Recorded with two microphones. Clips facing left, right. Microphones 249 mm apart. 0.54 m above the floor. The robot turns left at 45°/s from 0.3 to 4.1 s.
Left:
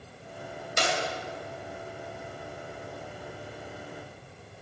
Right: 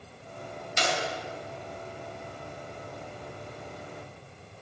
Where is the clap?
55° left (ahead or behind), 3 m; by 1.0 s 60° left (ahead or behind), 3 m.